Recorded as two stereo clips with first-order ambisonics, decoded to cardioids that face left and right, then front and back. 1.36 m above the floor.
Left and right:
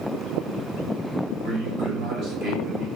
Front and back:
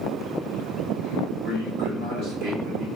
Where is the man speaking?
140° right, 1.1 m.